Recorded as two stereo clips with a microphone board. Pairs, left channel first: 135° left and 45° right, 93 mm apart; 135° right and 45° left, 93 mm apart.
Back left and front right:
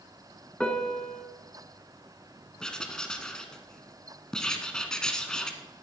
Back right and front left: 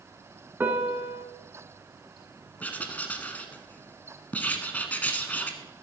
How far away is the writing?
About 1.1 m.